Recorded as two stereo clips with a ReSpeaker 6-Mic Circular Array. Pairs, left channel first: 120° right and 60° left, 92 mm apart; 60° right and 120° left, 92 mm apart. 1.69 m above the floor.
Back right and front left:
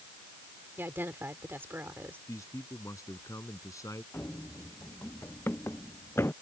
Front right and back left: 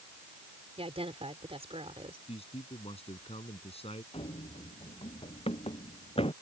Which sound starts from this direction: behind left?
A woman speaking, at 0.8 s.